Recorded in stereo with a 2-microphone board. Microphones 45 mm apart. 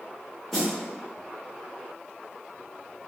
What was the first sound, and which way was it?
A snare drum, 5° left (ahead or behind).